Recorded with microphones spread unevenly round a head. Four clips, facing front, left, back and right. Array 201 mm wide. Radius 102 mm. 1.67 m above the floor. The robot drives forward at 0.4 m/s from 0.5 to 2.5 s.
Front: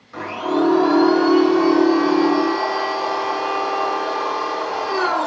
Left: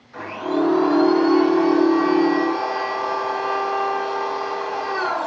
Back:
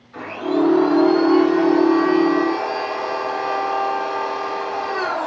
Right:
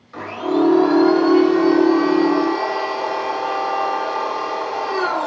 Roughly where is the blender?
Ahead right.